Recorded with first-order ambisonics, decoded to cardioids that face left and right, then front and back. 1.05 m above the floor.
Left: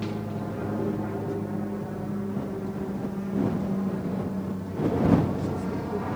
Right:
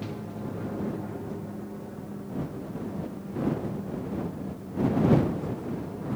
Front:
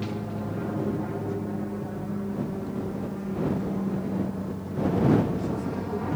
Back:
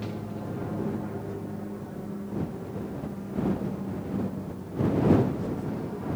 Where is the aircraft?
60° left.